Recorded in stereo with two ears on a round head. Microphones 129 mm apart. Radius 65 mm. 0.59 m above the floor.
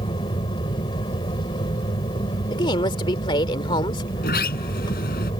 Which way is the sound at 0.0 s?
30° left (ahead or behind).